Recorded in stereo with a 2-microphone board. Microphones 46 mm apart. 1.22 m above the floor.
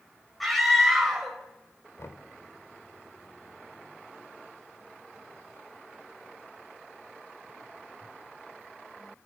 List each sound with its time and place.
0.4 s a scream: centre (ahead or behind), 5 m
2.0 s knocking: 75° left (ahead or behind), 3 m